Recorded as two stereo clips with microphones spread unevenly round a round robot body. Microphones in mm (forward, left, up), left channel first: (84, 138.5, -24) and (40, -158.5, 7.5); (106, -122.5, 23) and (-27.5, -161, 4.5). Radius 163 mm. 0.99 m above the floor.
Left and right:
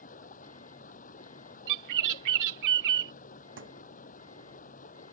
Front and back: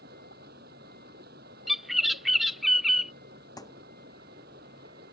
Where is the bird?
80° right.